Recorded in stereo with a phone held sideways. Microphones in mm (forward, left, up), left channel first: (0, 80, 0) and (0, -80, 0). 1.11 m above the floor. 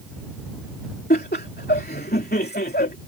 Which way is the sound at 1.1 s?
80° left.